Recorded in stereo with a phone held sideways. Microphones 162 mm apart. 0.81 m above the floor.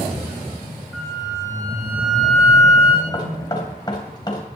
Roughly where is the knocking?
Left.